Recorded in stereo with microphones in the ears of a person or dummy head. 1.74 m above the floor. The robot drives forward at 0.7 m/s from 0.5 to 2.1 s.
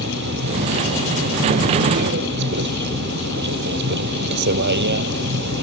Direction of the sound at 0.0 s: 55° right (ahead or behind).